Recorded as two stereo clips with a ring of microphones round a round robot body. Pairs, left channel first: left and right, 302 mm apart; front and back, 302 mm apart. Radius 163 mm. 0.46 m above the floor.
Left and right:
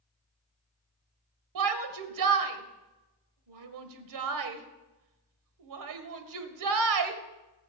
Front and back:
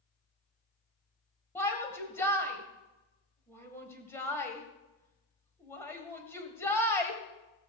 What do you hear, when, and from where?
1.6 s a shout: 80° right, 1.8 m